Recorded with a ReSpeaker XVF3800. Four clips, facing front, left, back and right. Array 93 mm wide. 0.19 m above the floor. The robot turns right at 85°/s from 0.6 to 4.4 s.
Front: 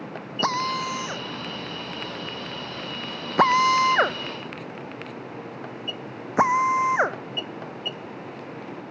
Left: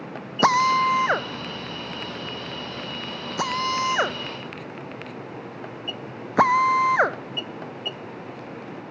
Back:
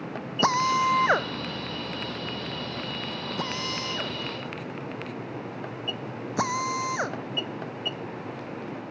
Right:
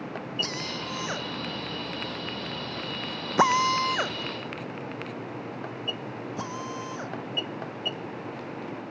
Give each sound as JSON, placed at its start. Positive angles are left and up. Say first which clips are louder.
{"t": 0.4, "sound": "a drill", "louder": "left 17 dB, back 3 dB", "azimuth_deg": 95}